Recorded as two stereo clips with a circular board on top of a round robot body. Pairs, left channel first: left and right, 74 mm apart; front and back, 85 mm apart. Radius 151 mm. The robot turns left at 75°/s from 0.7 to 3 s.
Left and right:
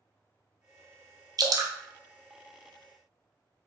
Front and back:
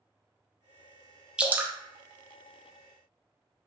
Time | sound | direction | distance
1.4 | dripping | 100° right | 0.5 m